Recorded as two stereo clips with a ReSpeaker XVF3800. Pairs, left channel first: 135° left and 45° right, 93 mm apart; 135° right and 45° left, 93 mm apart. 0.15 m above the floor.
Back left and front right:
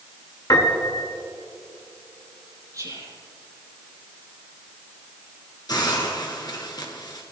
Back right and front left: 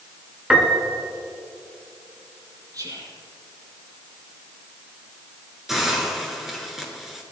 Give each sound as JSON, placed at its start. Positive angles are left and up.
{"t": 0.5, "sound": "a piano", "azimuth_deg": 120, "distance_m": 1.6}
{"t": 2.7, "sound": "whispering", "azimuth_deg": 0, "distance_m": 4.0}
{"t": 5.7, "sound": "a hiss", "azimuth_deg": 130, "distance_m": 2.5}